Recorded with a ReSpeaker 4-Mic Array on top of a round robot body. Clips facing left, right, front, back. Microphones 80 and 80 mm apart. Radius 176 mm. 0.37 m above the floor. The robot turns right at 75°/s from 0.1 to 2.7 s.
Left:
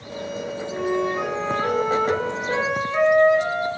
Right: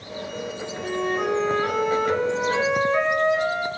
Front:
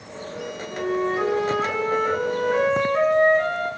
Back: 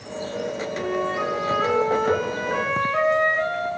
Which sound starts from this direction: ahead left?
A flute, at 0.7 s.